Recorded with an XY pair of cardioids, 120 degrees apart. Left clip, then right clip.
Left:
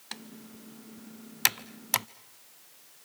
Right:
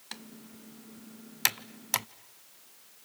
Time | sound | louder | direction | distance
0.1 | typing on a keyboard | left 2 dB | 10° left | 0.6 m